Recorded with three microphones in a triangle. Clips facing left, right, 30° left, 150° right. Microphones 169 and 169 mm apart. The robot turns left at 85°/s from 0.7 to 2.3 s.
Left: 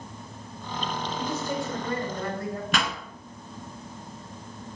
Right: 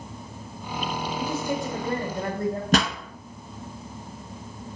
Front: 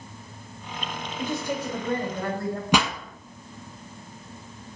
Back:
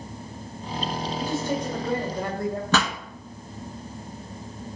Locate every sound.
1.2 s a man speaking: 5° right, 1.5 m; by 2.6 s 100° right, 1.5 m
2.7 s a pop: 45° right, 0.8 m